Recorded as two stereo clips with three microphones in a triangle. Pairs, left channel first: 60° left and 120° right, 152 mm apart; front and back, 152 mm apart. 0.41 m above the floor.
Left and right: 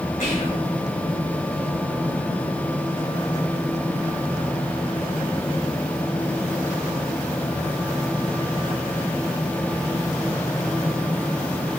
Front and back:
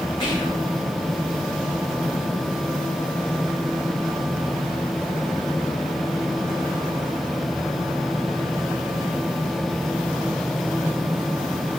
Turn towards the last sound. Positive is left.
turn(degrees=55)